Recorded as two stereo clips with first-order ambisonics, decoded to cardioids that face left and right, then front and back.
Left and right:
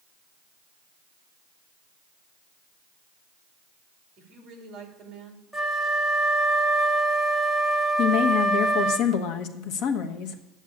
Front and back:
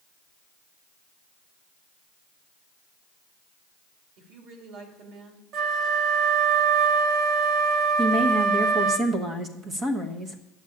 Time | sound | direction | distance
4.2 | a woman speaking | 155° right | 3 m
5.5 | a flute | 175° right | 1.0 m
8.0 | a woman speaking | 115° left | 1.2 m